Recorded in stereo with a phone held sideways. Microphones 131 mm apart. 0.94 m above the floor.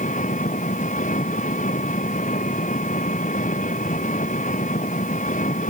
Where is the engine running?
80° left.